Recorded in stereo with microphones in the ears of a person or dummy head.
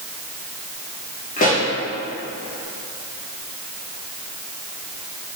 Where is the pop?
40° left (ahead or behind), 2 m.